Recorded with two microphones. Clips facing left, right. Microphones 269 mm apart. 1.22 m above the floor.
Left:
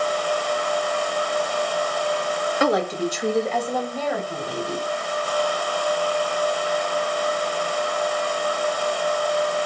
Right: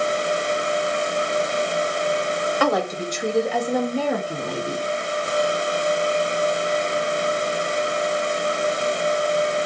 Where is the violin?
I don't hear a violin.